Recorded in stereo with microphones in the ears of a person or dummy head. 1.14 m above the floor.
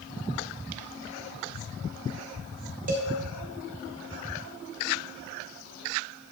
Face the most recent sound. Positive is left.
turn(degrees=-40)  # may be behind; listen again after turning